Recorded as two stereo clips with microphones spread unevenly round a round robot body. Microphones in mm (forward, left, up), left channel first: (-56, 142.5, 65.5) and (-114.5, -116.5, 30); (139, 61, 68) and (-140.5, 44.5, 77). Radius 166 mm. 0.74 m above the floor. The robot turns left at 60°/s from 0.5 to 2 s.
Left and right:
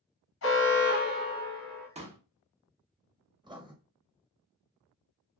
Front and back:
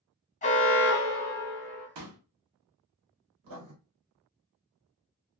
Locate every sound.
0.4 s an alarm: 55° left, 1.6 m; by 1.9 s 30° right, 1.6 m
1.9 s a pop: 165° right, 1.0 m; by 2.2 s 170° right, 1.0 m
3.4 s writing: straight behind, 1.2 m